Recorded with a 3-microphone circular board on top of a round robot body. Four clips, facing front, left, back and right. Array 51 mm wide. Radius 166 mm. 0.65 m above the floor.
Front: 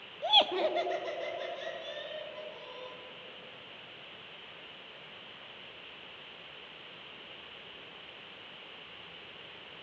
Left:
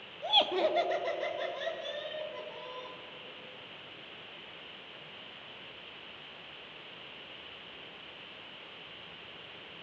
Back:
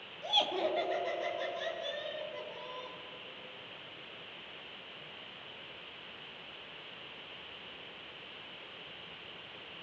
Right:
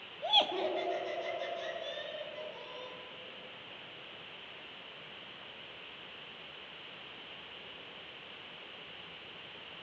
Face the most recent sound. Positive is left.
turn(degrees=105)